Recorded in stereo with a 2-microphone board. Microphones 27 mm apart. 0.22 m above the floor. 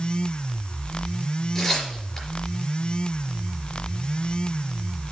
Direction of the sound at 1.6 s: 10° left (ahead or behind).